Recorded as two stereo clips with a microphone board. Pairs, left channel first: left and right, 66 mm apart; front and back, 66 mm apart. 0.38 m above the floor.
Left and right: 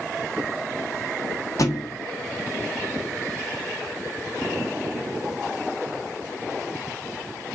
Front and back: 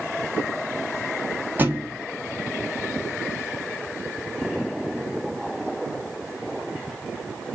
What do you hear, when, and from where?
1.6 s a thud: 125° left, 1.5 m